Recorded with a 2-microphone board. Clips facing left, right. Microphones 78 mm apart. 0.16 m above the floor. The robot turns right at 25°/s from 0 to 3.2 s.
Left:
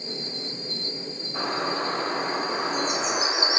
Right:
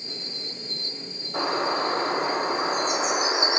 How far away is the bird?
About 1.5 m.